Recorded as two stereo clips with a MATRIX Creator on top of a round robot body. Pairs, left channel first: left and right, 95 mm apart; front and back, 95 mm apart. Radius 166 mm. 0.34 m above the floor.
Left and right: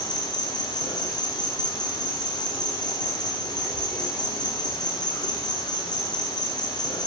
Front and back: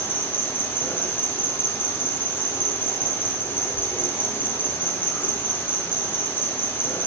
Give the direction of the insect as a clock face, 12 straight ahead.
10 o'clock.